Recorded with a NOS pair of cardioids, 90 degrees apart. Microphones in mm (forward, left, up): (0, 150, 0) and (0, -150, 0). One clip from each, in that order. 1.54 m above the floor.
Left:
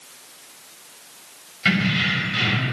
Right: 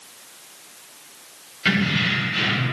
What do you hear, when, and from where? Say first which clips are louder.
1.6 s keys jangling: even; 5° left, 1.1 m